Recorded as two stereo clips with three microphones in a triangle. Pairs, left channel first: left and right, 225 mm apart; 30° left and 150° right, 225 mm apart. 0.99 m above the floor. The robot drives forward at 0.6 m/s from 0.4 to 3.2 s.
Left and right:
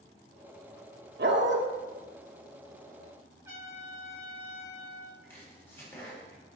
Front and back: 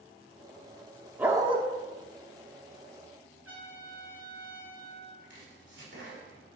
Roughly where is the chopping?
Behind.